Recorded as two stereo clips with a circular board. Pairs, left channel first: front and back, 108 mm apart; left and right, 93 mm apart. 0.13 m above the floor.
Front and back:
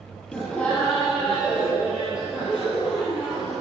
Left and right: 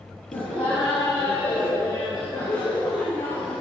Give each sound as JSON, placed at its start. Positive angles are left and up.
{"t": 0.3, "sound": "laughter", "azimuth_deg": 75, "distance_m": 3.0}